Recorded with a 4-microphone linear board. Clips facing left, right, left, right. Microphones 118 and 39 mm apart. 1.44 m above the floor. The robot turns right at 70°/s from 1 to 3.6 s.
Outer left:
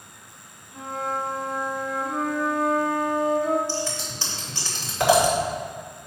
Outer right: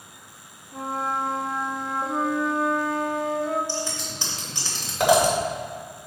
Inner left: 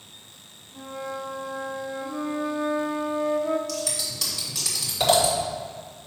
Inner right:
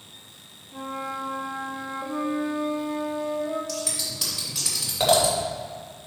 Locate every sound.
0.7 s a flute: 115° right, 0.9 m; by 3.6 s 65° left, 0.9 m
3.7 s scissors: 15° right (ahead or behind), 2.5 m